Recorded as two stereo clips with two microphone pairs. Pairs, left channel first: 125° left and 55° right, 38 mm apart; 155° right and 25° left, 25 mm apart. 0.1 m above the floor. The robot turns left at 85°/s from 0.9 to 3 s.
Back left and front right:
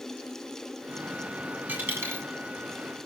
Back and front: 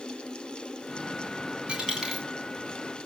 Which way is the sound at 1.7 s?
15° right.